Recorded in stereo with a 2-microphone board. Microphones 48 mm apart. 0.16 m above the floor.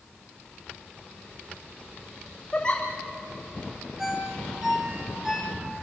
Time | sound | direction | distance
2.5 | a giggle | 20° left (ahead or behind) | 4 m
4.0 | a ringtone | 10° right (ahead or behind) | 4.5 m